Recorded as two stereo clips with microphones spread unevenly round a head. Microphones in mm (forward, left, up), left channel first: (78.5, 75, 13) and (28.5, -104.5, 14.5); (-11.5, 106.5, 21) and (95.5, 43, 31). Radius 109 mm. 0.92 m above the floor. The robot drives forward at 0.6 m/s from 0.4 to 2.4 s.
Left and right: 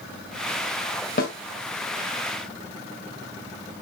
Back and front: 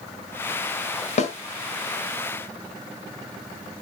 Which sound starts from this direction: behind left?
A snare drum, at 1.2 s.